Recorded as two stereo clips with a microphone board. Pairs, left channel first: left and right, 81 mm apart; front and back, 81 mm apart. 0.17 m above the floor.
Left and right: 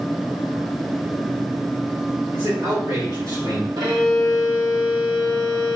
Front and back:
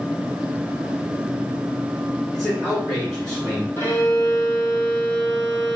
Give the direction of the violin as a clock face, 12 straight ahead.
2 o'clock.